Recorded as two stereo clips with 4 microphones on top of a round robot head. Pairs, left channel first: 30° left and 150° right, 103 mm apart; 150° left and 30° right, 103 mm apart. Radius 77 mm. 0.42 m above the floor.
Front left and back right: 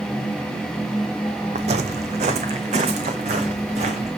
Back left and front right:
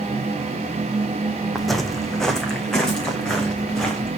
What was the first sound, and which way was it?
Footsteps, 125° right.